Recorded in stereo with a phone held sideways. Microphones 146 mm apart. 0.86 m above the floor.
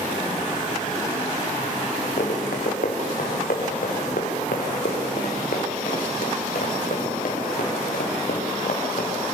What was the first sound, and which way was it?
Running footsteps, 80° left.